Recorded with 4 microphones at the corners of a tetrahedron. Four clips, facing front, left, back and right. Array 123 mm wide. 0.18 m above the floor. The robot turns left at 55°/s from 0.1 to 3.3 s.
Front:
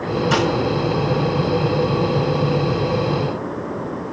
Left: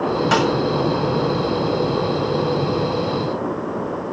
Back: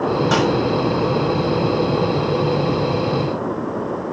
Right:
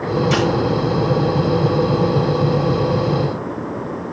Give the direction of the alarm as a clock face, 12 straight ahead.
No alarm in this recording.